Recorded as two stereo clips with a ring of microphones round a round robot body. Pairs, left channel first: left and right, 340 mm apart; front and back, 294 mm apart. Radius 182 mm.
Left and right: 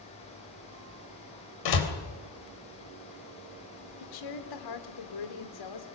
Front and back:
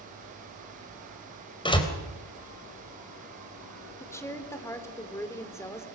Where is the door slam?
75° left, 3.5 m.